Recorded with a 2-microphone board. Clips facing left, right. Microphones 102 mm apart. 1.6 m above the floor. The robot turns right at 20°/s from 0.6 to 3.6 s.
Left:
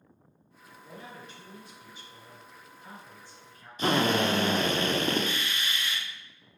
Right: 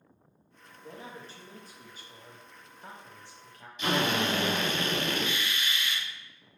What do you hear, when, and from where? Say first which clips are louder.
0.8 s a man speaking: right 1 dB; 155° right, 0.9 m; by 3.7 s 100° right, 0.9 m
3.8 s a drill: left 3 dB; 40° left (ahead or behind), 0.6 m